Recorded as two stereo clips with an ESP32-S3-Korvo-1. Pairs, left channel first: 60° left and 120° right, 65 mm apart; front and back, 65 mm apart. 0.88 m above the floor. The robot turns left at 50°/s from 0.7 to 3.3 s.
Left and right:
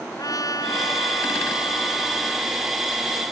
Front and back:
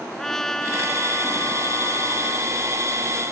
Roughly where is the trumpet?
Left.